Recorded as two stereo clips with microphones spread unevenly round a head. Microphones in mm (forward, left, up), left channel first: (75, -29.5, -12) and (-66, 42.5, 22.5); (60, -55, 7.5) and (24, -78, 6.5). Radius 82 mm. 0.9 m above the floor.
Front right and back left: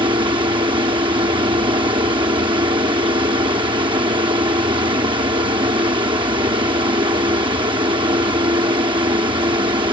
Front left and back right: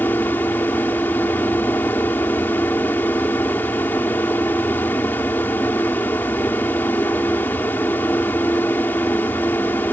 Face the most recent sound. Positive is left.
turn(degrees=90)